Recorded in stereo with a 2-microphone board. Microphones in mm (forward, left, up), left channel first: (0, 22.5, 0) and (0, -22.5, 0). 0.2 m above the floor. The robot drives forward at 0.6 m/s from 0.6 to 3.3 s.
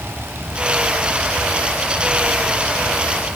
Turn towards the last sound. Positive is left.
No sound to turn to.